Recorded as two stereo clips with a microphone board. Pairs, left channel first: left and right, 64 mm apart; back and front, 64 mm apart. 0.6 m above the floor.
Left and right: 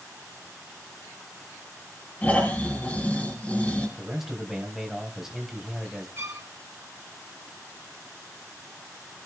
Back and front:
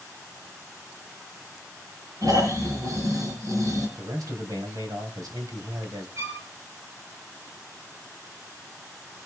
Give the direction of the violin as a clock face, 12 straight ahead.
1 o'clock.